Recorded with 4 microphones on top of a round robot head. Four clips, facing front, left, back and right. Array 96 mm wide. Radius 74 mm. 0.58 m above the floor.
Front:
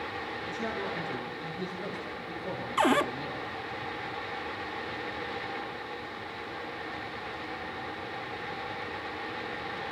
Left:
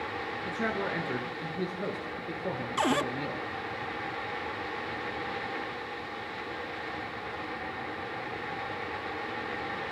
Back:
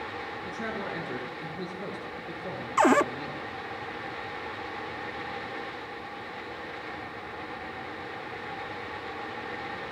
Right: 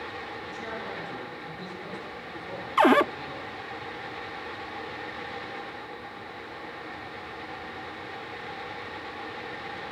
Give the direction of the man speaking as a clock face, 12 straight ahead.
8 o'clock.